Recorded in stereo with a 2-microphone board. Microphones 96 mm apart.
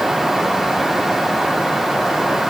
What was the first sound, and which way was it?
Only background noise.